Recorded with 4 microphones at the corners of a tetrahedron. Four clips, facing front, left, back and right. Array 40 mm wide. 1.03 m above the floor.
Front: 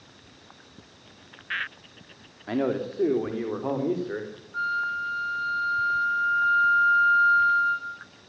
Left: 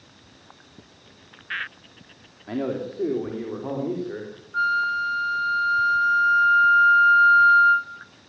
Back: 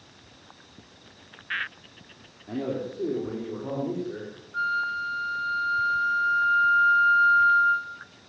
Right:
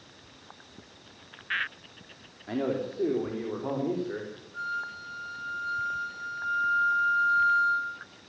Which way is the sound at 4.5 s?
90° left.